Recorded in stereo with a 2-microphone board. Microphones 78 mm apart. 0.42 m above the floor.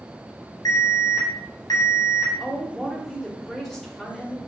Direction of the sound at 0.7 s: 55° left (ahead or behind).